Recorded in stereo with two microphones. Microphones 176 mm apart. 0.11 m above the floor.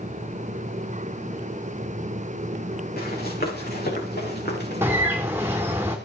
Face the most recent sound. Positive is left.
turn(degrees=-15)  # may be behind; listen again after turning